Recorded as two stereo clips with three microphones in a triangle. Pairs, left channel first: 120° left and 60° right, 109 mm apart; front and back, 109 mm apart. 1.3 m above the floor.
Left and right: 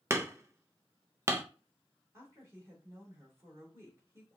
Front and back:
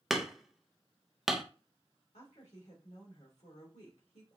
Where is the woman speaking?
Straight ahead, 1.8 m.